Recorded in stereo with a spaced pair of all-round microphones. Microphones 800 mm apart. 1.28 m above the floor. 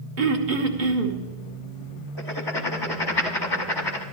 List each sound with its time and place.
0.2 s throat clearing: 75° right (ahead or behind), 1.2 m
2.2 s writing: 30° left (ahead or behind), 1.1 m